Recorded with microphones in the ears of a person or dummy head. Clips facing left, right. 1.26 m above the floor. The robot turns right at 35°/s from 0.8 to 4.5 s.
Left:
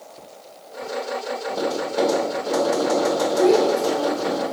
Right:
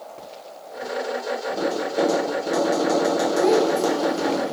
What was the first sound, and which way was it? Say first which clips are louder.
Tapping: left 1 dB; 15° left (ahead or behind).